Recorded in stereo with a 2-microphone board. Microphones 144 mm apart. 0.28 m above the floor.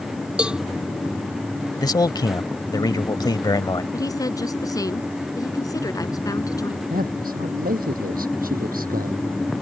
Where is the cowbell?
5° right (ahead or behind).